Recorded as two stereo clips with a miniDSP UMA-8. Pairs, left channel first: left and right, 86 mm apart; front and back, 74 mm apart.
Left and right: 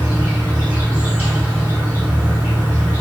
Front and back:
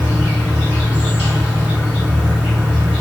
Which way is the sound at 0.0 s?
135° right.